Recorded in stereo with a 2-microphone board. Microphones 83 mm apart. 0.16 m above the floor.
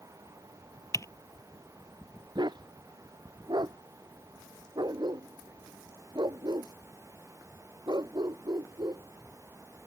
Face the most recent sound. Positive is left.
turn(degrees=-60)  # may be behind; listen again after turning